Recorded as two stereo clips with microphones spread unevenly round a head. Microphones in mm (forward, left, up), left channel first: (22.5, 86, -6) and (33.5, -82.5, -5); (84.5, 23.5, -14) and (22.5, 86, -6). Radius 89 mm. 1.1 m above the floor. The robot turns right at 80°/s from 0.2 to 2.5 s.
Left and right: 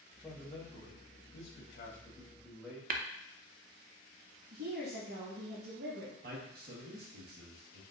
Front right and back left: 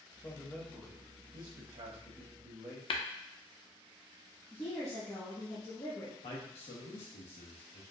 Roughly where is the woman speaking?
Right.